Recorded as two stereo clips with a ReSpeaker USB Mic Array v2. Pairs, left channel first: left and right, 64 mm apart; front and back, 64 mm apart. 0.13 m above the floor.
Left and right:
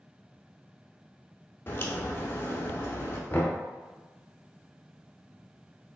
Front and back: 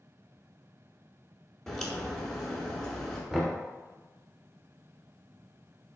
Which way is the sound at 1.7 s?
80° left.